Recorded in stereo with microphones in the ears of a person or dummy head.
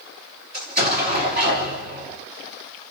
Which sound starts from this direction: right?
An explosion, at 0.5 s.